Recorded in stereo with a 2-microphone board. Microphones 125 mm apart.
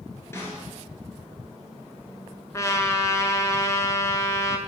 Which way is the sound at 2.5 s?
25° left (ahead or behind).